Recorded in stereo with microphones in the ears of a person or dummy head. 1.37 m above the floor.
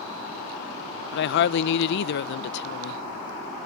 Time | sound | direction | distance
1.1 | a woman speaking | 60° left (ahead or behind) | 0.7 m